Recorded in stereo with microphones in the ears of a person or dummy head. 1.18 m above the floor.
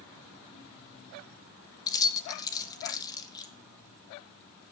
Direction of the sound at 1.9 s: 20° left (ahead or behind).